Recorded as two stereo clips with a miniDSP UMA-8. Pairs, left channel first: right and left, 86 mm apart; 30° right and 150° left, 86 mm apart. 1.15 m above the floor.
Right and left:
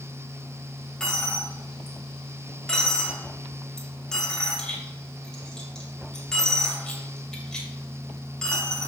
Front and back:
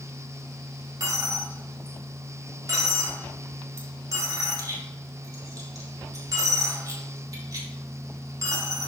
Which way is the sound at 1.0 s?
170° right.